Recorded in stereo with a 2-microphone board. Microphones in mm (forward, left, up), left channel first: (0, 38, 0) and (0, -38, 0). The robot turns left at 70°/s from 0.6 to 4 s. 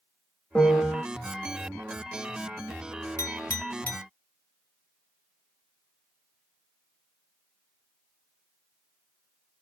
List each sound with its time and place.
0.6 s a piano: 5° left (ahead or behind), 1.1 m; by 1.0 s 10° right (ahead or behind), 1.1 m
3.2 s a clink: 40° left (ahead or behind), 1.0 m; by 4.0 s 20° left (ahead or behind), 1.0 m